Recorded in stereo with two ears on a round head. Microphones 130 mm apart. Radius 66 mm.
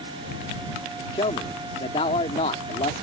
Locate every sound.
1.1 s a man speaking: 40° left (ahead or behind)